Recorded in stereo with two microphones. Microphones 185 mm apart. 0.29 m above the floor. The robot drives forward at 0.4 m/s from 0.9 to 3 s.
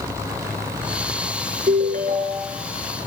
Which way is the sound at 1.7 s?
50° right (ahead or behind).